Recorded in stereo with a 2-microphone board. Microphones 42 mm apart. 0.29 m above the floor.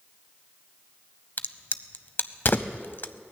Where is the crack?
55° left (ahead or behind), 0.5 m.